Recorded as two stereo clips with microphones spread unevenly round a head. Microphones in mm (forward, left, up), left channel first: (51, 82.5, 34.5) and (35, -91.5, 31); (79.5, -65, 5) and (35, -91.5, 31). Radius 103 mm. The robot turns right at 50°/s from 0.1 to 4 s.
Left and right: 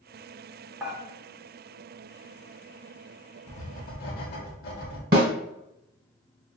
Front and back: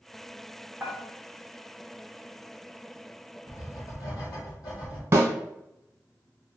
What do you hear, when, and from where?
0.8 s dishes clattering: 175° right, 0.8 m; by 1.0 s 165° right, 0.8 m
3.5 s writing: 30° left, 0.9 m; by 5.0 s 60° left, 0.9 m
5.1 s a snare drum: 140° right, 1.1 m